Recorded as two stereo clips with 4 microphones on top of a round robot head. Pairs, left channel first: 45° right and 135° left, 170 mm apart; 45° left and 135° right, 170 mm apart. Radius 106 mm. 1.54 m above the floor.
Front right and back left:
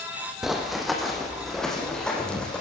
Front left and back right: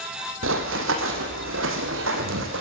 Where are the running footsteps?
140° right, 4 m; by 2.6 s 130° right, 5 m.